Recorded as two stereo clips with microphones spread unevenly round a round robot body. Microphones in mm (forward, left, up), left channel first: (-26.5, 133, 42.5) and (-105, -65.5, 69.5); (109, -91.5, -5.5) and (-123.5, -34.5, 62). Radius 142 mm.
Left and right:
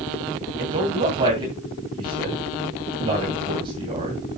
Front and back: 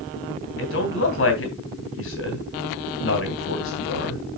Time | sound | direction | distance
0.6 | a man speaking | 50° right | 2.5 m